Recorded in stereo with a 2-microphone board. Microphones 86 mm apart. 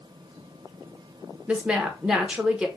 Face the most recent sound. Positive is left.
turn(degrees=-10)  # may be behind; listen again after turning